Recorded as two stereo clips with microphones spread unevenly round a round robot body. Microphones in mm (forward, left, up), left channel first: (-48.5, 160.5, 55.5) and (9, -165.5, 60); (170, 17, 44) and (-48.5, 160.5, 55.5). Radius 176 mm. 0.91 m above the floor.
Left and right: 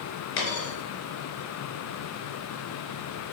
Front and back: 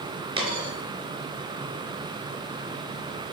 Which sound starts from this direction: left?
A dropped coin, at 0.4 s.